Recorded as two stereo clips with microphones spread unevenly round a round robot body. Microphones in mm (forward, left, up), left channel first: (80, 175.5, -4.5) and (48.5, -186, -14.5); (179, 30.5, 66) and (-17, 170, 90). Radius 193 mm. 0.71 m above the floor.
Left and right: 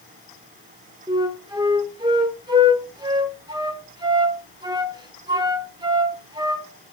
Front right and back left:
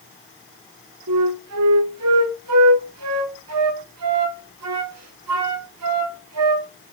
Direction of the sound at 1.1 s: 175° right.